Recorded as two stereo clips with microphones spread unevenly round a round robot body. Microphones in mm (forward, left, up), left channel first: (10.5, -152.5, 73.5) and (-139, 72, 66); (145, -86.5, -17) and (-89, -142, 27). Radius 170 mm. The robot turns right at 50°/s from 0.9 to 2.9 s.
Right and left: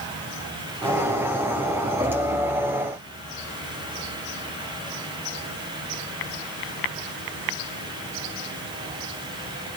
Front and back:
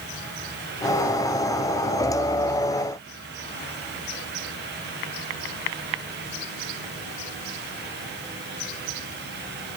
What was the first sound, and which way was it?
Only background noise.